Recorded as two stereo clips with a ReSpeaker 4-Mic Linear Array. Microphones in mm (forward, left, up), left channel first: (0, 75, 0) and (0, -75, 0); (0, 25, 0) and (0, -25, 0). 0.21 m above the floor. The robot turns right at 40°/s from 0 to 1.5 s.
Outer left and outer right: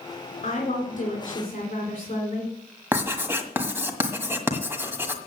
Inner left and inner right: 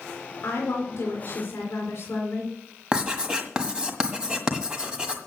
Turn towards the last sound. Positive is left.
turn(degrees=-15)  # may be behind; listen again after turning